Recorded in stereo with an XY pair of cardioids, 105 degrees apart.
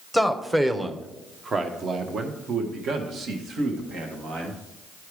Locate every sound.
0.1 s a man speaking: 5° right, 1.2 m; by 4.6 s 75° right, 2.5 m